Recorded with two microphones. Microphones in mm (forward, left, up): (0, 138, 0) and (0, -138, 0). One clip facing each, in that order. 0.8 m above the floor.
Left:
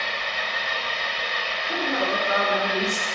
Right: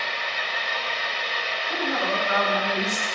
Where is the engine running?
55° left (ahead or behind), 3 m.